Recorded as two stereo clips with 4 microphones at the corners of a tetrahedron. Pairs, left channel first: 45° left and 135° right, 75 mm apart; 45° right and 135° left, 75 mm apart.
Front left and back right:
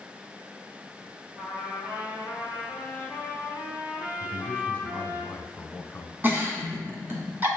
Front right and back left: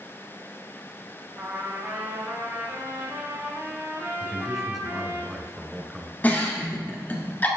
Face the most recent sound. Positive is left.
turn(degrees=-95)